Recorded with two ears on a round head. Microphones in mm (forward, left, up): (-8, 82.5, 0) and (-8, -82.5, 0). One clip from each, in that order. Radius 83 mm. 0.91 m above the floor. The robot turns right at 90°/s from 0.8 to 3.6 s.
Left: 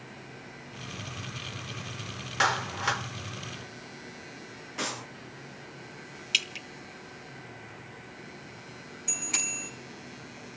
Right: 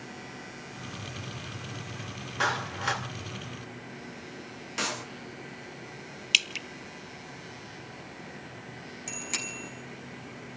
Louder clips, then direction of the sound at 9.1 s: Left 3 dB; 30° right (ahead or behind).